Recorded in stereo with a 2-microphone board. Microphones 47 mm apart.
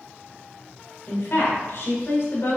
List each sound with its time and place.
1.1 s a woman speaking: 50° left (ahead or behind), 1.2 m